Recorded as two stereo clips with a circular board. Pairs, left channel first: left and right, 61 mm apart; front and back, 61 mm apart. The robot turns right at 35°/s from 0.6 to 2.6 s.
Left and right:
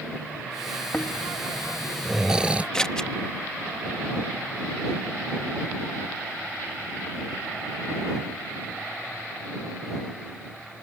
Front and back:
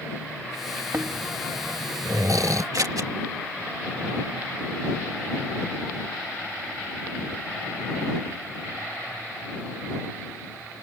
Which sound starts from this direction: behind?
Scissors, at 2.7 s.